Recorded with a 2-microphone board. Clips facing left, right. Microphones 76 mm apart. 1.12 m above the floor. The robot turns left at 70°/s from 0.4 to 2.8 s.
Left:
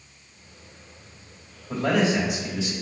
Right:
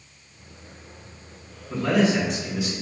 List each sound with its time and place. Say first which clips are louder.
1.7 s a man speaking: right 1 dB; 55° left, 1.7 m; by 2.7 s 15° right, 1.7 m